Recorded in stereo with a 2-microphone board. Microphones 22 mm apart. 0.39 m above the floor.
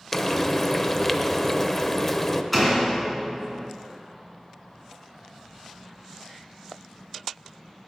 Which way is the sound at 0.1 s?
20° left (ahead or behind).